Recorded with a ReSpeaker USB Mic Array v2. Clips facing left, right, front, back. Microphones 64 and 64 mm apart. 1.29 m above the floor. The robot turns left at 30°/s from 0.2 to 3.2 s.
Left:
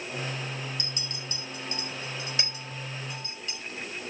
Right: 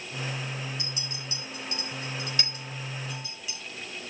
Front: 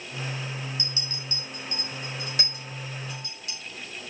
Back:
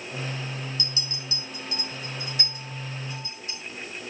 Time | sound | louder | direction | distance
0.8 | a clink | even, back 1 dB | 65° left | 5.5 m